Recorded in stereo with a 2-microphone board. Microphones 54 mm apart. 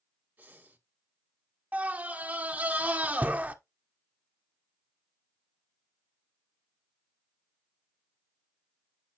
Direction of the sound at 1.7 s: 30° right (ahead or behind).